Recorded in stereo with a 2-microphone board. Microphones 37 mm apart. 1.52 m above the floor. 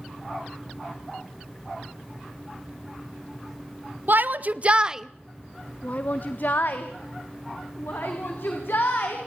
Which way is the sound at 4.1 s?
60° right (ahead or behind).